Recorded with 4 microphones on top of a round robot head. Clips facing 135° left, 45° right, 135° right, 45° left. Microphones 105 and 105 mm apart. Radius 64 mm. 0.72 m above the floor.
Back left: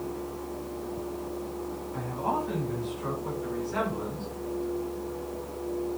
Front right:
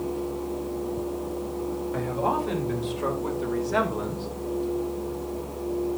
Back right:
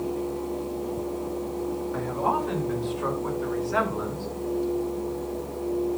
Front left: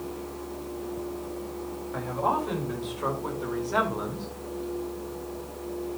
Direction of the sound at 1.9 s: 35° right.